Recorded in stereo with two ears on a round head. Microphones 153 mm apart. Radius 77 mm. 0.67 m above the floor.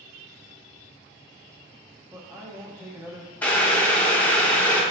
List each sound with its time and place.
2.1 s a man speaking: 15° right (ahead or behind), 0.6 m
3.4 s boiling: 10° left (ahead or behind), 0.6 m